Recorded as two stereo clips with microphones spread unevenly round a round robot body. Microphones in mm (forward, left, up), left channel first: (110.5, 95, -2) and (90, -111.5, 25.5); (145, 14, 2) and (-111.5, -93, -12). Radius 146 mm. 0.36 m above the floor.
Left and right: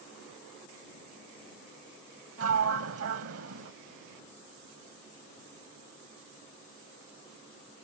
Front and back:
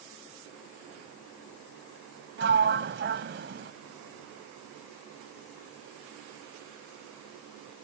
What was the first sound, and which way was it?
A sliding door, 110° right.